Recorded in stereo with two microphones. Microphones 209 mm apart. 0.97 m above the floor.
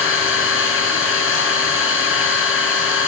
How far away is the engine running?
About 4.5 m.